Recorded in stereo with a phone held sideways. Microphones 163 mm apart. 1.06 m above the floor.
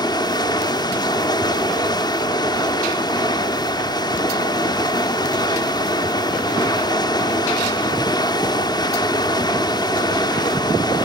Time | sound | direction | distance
0.0 | running water | 25° left (ahead or behind) | 0.7 m